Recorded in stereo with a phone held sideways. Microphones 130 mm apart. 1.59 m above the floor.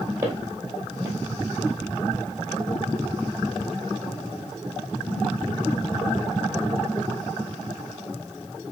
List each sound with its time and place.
0.2 s footsteps: 20° right (ahead or behind), 1.7 m